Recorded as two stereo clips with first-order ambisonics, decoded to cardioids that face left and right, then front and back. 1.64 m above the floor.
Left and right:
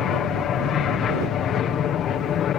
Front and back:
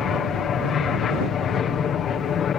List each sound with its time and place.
0.0 s an aircraft: 50° left